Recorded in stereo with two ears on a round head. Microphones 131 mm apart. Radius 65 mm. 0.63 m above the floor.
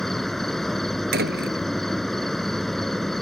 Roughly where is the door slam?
Right.